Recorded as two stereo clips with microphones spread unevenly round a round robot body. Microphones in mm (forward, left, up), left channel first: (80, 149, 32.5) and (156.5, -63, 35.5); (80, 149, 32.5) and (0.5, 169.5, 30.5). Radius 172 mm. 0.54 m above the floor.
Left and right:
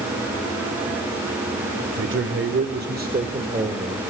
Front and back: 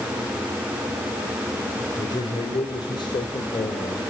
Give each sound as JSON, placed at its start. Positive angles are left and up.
{"t": 2.0, "sound": "a man speaking", "azimuth_deg": -55, "distance_m": 1.9}